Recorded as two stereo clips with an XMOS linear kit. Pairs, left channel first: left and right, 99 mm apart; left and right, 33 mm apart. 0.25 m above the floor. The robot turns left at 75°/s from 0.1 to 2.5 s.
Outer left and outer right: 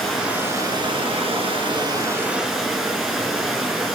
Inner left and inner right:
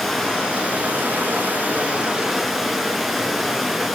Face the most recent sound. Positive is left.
turn(degrees=180)